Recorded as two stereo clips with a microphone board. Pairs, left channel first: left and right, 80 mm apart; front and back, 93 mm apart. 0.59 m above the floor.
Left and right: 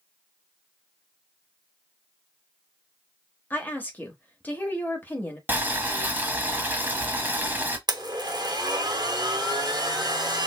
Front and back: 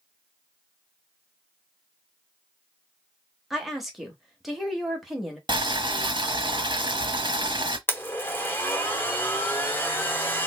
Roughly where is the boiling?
Behind right.